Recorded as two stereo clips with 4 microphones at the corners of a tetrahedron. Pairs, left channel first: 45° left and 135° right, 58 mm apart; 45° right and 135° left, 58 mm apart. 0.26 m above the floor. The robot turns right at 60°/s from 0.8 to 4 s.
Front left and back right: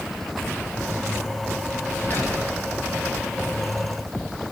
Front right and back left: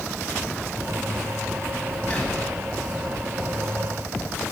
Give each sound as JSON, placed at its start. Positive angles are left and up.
{"t": 2.1, "sound": "whispering", "azimuth_deg": 10, "distance_m": 1.4}